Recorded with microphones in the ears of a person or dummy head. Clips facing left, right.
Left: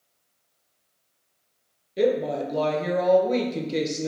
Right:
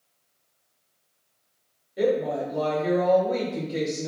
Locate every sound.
2.0 s a woman speaking: 35° left (ahead or behind), 0.6 m